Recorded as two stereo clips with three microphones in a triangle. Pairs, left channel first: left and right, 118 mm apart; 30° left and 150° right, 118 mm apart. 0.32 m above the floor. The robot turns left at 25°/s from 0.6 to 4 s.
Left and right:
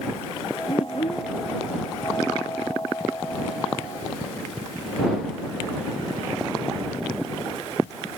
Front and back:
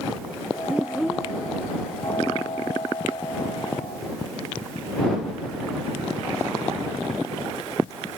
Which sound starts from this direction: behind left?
A child speaking, at 0.7 s.